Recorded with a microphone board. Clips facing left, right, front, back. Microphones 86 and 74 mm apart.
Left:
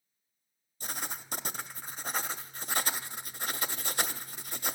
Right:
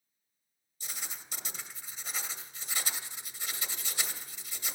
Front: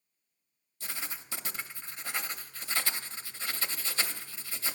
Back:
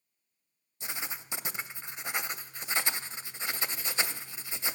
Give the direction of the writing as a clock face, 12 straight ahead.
8 o'clock.